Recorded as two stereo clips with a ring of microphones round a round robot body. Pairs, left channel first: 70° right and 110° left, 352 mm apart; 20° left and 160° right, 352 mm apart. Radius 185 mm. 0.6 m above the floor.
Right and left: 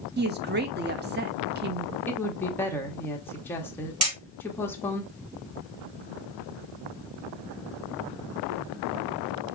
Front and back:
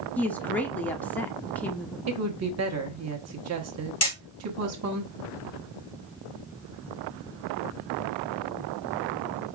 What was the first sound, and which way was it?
A woman speaking, 105° left.